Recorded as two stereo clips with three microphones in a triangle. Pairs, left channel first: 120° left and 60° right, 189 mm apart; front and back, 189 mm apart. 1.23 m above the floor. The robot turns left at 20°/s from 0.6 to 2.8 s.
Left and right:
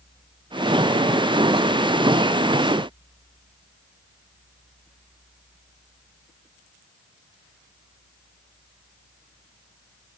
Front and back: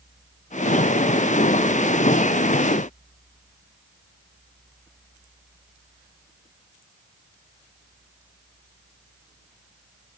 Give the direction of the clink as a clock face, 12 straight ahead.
No clink in this recording.